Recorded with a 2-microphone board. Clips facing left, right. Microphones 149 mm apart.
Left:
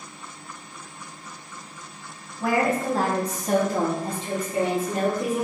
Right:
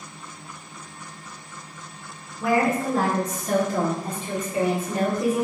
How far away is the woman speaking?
About 1.4 m.